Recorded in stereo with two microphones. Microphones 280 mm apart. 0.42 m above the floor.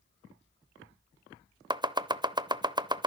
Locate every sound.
1.7 s chopping: 15° right (ahead or behind), 0.7 m